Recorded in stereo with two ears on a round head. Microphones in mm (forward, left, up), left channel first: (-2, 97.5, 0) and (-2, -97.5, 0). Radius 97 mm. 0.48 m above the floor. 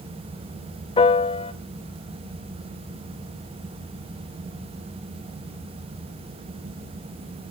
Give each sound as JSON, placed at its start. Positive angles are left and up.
{"t": 1.0, "sound": "a piano", "side_deg": 25, "distance_m": 0.5}